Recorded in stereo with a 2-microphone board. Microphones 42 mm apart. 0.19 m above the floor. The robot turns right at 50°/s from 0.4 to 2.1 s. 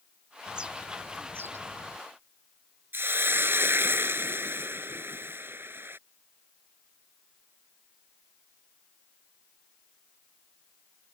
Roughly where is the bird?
Behind.